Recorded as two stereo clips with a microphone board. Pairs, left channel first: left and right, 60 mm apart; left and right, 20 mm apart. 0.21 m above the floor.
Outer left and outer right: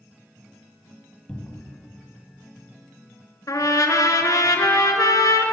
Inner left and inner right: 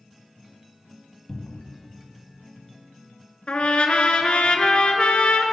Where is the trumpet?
80° left, 0.6 m.